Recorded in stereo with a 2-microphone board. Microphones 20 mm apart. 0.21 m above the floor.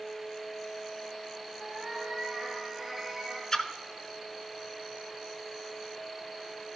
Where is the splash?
30° left (ahead or behind), 0.6 m.